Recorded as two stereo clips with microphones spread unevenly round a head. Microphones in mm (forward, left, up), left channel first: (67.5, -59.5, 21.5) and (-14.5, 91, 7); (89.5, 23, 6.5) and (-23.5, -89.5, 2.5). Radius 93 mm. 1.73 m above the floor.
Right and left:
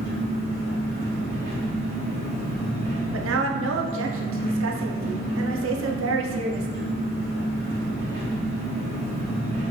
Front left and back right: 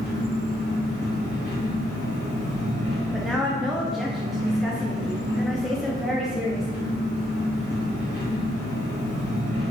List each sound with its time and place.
0.0 s an engine running: 160° left, 1.9 m
3.1 s a woman speaking: 135° left, 0.6 m